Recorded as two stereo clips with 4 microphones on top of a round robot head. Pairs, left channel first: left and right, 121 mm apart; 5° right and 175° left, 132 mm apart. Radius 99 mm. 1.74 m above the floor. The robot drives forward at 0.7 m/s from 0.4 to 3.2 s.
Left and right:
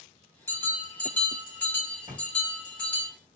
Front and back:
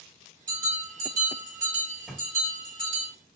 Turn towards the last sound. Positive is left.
turn(degrees=-145)